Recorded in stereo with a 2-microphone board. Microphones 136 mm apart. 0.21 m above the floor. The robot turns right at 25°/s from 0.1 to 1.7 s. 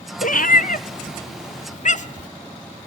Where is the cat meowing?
80° left, 0.6 m; by 2.3 s 60° left (ahead or behind), 0.6 m.